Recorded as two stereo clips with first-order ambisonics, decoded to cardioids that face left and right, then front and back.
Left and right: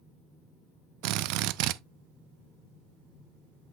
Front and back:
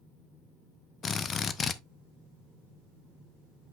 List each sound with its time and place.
1.0 s a drill: 70° right, 0.5 m